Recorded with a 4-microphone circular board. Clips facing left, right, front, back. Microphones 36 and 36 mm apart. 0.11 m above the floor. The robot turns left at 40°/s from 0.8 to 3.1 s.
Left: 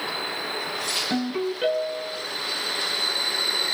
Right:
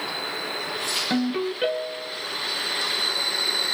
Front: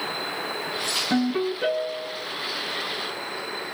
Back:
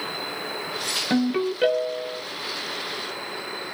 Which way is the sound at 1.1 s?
145° right.